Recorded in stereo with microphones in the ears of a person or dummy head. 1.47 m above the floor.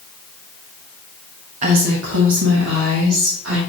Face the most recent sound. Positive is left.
turn(degrees=-70)  # may be behind; listen again after turning